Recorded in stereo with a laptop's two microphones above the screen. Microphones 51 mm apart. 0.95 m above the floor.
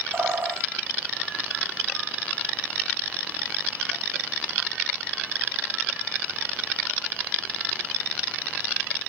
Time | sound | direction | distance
0.1 | a bird | 55° right (ahead or behind) | 1.6 m